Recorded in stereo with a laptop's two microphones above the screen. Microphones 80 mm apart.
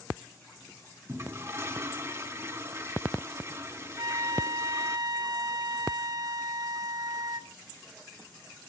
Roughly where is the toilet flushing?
Right.